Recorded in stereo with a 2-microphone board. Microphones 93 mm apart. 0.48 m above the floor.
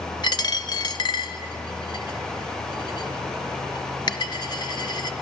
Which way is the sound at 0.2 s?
50° left (ahead or behind).